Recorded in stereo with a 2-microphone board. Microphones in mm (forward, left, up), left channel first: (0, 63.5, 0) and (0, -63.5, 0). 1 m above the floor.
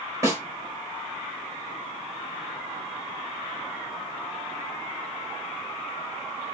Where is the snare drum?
25° right (ahead or behind), 1.6 m.